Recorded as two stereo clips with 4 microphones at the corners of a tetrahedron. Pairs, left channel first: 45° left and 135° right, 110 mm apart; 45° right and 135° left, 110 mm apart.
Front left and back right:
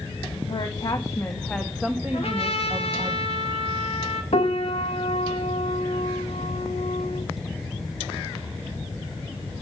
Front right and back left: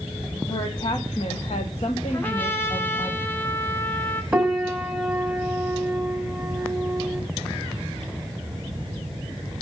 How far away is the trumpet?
About 1.3 m.